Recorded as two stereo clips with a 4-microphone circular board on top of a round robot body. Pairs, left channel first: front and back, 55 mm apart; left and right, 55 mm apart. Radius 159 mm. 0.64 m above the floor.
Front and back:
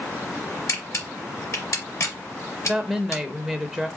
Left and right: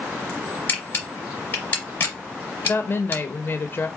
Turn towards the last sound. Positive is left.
turn(degrees=90)